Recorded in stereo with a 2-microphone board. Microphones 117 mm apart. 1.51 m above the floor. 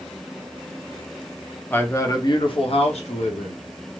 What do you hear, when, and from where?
1.7 s a man speaking: 15° left (ahead or behind), 0.7 m; by 3.6 s 85° left, 1.0 m